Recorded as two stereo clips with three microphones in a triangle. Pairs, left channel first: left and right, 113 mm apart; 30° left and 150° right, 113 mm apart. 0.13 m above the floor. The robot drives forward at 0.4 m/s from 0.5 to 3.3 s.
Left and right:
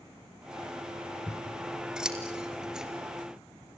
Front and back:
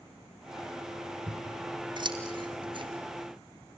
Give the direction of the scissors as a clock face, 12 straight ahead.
6 o'clock.